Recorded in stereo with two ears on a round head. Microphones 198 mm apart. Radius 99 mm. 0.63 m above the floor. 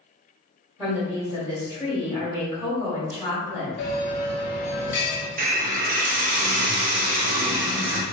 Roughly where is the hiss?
Right.